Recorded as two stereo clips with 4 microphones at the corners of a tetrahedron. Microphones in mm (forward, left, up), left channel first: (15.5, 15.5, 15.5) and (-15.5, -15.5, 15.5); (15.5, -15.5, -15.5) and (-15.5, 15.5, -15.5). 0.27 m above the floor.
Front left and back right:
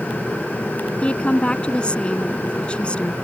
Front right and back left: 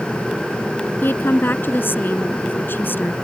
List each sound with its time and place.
1.0 s a woman speaking: 20° right